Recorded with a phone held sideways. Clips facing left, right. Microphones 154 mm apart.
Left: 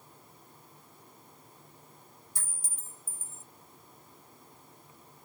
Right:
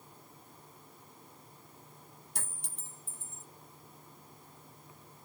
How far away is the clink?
About 1.0 m.